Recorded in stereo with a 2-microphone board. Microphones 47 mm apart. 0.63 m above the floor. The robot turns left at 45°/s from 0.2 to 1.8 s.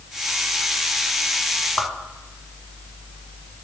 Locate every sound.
1.8 s a whoosh: 10° left (ahead or behind), 0.7 m; by 1.9 s 15° left (ahead or behind), 0.7 m